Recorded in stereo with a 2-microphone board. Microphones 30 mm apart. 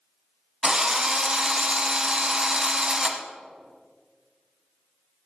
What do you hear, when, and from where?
0.6 s a drill: 25° right (ahead or behind), 1.3 m